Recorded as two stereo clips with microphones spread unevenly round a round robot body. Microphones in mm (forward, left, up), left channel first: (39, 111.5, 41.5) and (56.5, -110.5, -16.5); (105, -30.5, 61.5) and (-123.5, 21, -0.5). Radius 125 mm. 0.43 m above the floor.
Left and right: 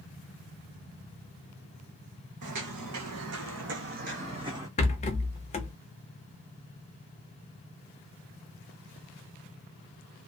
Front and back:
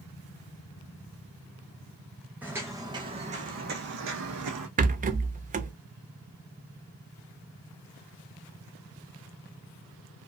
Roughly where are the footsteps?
Right.